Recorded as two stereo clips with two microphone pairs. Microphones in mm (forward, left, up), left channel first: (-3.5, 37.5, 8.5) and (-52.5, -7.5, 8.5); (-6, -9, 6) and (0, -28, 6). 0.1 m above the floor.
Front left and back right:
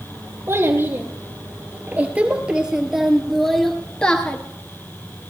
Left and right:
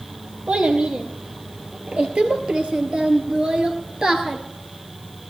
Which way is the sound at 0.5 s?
95° right.